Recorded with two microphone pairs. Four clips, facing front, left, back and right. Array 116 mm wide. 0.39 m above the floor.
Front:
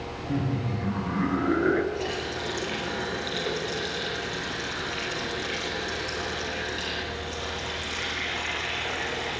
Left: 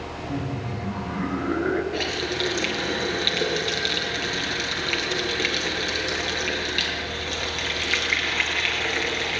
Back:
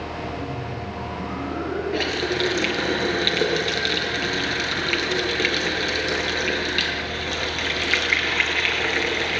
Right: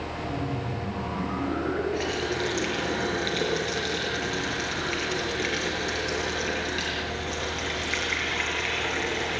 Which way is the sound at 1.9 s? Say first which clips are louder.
Even, back 7 dB; 165° left.